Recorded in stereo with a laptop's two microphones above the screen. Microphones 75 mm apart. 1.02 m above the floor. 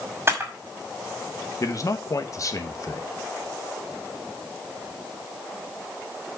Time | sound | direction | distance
0.3 | a camera shutter | 35° right (ahead or behind) | 1.8 m
1.6 | a man speaking | 45° left (ahead or behind) | 1.2 m